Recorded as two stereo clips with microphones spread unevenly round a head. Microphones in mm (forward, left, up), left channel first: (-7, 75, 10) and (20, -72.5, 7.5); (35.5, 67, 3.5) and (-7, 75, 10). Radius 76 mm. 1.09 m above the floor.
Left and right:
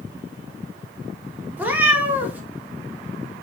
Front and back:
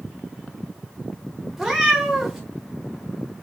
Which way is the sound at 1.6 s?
140° right.